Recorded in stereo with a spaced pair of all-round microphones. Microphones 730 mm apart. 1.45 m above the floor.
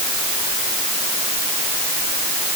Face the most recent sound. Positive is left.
No sound to turn to.